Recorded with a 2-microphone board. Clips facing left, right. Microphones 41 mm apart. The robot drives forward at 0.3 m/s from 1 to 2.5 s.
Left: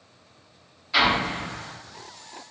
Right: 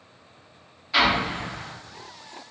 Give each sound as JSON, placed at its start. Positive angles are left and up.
{"t": 0.9, "sound": "an explosion", "side_deg": -5, "distance_m": 1.3}